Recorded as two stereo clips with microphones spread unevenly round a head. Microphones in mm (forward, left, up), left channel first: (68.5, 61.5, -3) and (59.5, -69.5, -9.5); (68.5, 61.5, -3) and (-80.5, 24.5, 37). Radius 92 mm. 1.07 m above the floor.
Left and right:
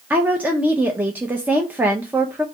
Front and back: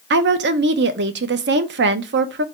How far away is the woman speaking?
About 0.6 m.